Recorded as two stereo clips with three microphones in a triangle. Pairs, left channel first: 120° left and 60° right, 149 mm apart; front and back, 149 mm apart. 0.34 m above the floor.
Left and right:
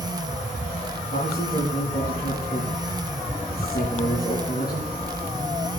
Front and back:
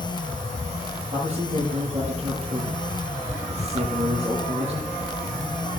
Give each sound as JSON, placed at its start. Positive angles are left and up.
{"t": 1.1, "sound": "a man speaking", "azimuth_deg": 140, "distance_m": 5.5}